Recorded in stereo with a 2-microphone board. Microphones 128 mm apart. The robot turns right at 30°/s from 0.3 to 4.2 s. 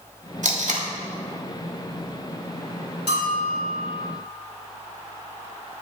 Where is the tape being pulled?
70° right (ahead or behind), 1.6 m; by 0.9 s 75° right (ahead or behind), 1.6 m.